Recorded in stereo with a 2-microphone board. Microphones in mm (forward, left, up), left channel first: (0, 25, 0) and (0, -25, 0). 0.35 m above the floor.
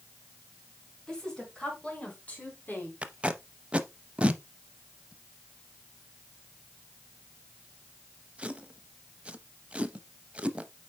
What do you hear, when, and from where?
1.1 s a woman speaking: 10° left (ahead or behind), 4.5 m; by 2.9 s 40° left (ahead or behind), 3 m
3.0 s tape being pulled: 20° right (ahead or behind), 0.6 m